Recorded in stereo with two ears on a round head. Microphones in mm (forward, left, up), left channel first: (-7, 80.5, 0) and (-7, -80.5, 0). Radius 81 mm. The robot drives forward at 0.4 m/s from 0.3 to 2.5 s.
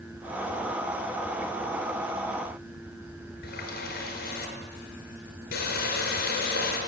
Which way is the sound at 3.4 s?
55° left (ahead or behind).